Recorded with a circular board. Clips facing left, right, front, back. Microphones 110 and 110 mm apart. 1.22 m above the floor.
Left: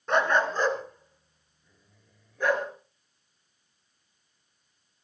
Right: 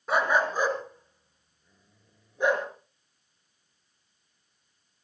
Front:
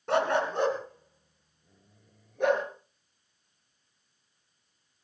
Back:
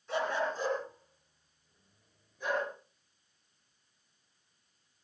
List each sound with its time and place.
0.1 s a dog barking: 5° right, 3.5 m; by 2.7 s 20° right, 5 m